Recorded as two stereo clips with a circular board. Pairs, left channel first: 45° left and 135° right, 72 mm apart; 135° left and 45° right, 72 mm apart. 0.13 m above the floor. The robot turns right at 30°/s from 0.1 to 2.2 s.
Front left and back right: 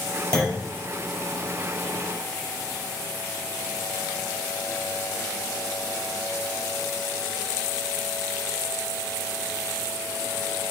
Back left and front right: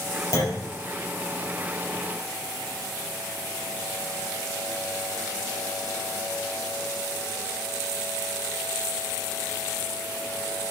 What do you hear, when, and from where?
0.3 s a clunk: 125° left, 3 m; by 0.7 s 135° left, 3 m